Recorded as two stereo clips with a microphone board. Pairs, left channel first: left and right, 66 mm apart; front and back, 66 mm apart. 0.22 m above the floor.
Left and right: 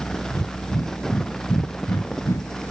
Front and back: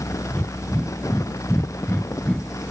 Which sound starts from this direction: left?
Breathing, at 0.3 s.